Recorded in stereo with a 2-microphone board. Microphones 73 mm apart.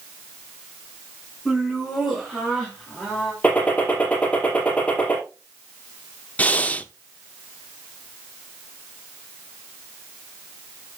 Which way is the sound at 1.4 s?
Centre (ahead or behind).